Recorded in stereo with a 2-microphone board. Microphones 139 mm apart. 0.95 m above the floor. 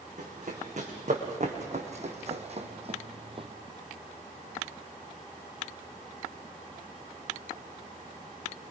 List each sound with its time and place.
0.2 s running footsteps: 55° right (ahead or behind), 5 m; by 3.5 s 40° right (ahead or behind), 2 m